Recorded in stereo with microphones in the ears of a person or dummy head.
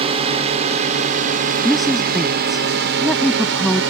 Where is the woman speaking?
Centre (ahead or behind).